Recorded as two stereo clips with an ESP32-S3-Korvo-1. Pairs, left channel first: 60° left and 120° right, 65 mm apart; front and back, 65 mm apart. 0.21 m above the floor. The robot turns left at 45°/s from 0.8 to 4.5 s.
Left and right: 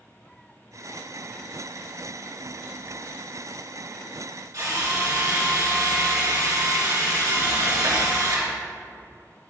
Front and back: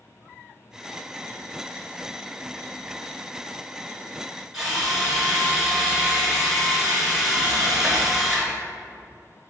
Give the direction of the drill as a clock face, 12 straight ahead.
3 o'clock.